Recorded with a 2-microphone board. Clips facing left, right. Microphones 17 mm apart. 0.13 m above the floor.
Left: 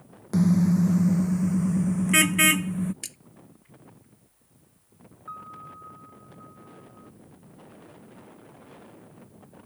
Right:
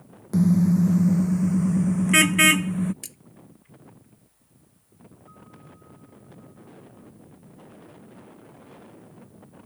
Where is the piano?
60° left (ahead or behind).